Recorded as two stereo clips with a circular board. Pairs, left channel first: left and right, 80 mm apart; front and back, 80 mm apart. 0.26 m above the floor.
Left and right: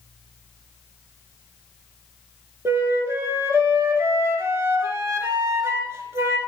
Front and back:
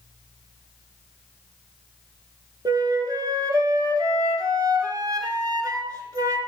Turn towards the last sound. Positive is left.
turn(degrees=-145)